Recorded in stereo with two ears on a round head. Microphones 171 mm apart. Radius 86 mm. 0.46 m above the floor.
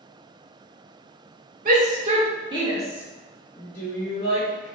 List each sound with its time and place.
1.6 s a shout: 45° right (ahead or behind), 1.3 m; by 4.8 s 40° left (ahead or behind), 1.2 m